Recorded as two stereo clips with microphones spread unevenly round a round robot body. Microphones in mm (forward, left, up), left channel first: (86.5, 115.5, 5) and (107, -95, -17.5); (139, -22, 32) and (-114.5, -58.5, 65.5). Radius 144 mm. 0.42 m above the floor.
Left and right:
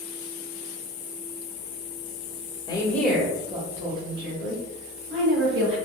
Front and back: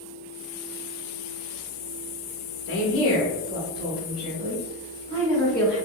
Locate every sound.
2.7 s a woman speaking: 25° left, 1.3 m; by 5.8 s 70° right, 3.5 m